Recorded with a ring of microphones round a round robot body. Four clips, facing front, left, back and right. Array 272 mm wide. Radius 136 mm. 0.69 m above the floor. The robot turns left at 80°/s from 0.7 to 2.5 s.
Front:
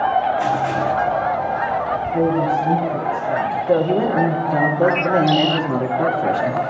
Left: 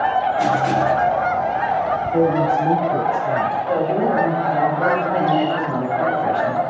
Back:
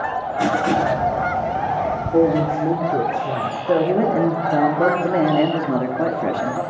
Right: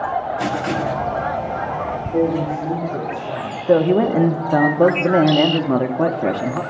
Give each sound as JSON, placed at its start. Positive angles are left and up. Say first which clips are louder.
{"t": 0.4, "sound": "writing", "louder": "left 4 dB, back 1 dB", "azimuth_deg": -165, "distance_m": 1.2}
{"t": 2.1, "sound": "a woman speaking", "louder": "left 2 dB, back 2 dB", "azimuth_deg": -160, "distance_m": 2.0}
{"t": 3.7, "sound": "a man speaking", "louder": "right 7 dB, back 1 dB", "azimuth_deg": -100, "distance_m": 1.4}